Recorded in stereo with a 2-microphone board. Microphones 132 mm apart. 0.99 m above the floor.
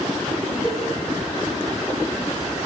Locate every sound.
0.6 s a cowbell: 50° left (ahead or behind), 5.5 m